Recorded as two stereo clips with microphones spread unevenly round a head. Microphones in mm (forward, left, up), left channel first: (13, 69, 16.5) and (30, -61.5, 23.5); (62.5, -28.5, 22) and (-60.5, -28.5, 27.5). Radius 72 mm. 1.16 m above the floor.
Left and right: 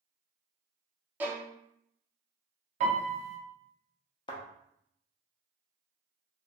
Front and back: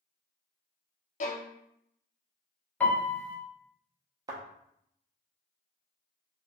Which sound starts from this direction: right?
A piano, at 2.8 s.